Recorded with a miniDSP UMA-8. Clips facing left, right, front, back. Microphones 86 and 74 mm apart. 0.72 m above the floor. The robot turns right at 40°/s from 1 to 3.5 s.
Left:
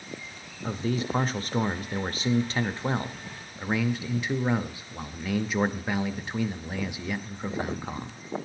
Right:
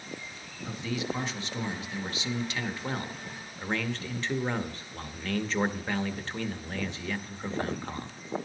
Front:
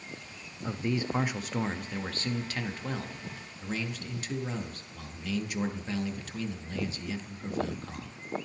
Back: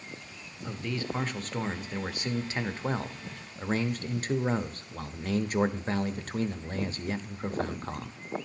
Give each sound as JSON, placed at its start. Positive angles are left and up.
{"t": 0.6, "sound": "a man speaking", "azimuth_deg": 65, "distance_m": 0.5}